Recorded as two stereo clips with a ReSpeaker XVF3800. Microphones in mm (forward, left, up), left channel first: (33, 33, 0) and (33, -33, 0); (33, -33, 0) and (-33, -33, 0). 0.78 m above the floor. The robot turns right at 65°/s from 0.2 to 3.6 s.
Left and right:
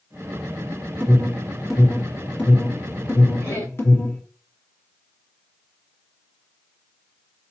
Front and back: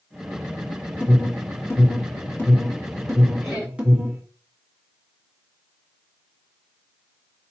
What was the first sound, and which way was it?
An alarm, 50° right.